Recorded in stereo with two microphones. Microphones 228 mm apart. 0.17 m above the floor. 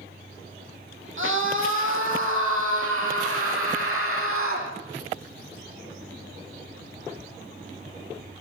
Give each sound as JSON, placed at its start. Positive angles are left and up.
{"t": 1.2, "sound": "a scream", "side_deg": -65, "distance_m": 8.5}